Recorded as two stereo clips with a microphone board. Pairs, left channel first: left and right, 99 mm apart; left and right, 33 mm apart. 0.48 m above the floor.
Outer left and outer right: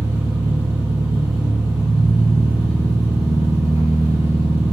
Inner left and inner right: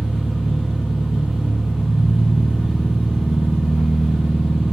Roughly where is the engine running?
Centre.